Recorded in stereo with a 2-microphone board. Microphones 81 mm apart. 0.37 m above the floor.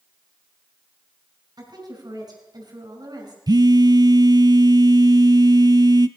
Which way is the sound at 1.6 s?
55° right (ahead or behind).